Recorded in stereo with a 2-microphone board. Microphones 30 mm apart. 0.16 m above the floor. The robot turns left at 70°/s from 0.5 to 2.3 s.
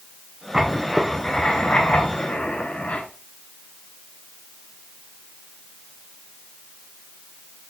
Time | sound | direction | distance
0.5 | writing | 160° right | 0.9 m